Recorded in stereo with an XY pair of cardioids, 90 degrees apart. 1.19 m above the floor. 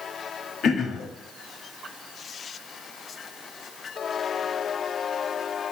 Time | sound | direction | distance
0.6 | throat clearing | 70° left | 1.4 m